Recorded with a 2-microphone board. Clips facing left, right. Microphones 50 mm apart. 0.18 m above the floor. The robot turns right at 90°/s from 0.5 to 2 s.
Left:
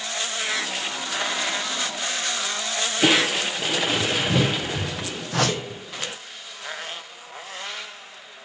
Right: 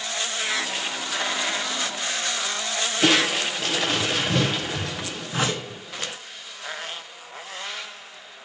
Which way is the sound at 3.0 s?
10° left (ahead or behind).